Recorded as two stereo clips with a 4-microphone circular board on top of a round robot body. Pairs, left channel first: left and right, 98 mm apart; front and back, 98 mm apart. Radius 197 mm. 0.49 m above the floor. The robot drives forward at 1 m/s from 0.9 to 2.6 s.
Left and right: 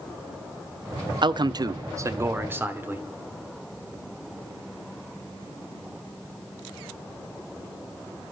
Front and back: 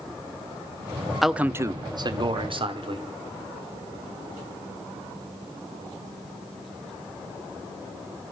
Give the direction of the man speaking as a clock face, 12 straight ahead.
3 o'clock.